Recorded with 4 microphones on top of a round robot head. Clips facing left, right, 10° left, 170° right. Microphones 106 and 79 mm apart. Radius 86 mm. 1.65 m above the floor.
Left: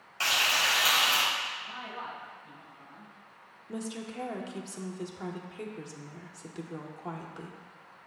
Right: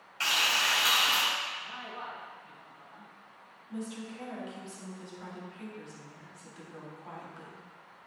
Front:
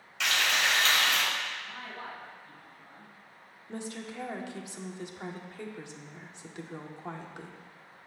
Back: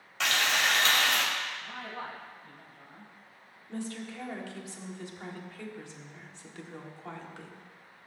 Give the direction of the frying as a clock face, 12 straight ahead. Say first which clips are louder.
Left 1 dB, even; 7 o'clock.